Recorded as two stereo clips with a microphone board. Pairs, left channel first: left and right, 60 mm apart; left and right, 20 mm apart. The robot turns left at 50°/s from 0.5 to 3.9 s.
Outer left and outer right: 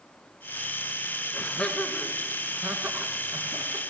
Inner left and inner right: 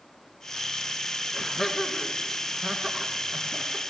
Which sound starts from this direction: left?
Laughter, at 1.3 s.